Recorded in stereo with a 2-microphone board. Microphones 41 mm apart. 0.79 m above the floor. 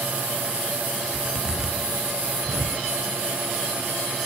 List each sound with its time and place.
1.1 s a zipper: 10° right (ahead or behind), 4.5 m